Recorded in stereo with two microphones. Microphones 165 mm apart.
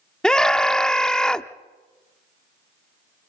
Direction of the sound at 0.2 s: 5° left (ahead or behind).